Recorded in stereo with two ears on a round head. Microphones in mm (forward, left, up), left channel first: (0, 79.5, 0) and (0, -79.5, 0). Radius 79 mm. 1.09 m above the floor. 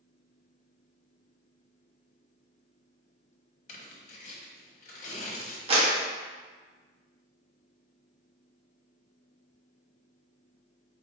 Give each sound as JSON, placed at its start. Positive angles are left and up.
{"t": 3.7, "sound": "tearing paper", "side_deg": 45, "distance_m": 1.0}
{"t": 5.7, "sound": "a clap", "side_deg": -35, "distance_m": 1.2}